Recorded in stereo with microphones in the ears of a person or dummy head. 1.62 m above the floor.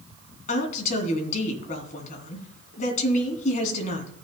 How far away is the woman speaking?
About 3 m.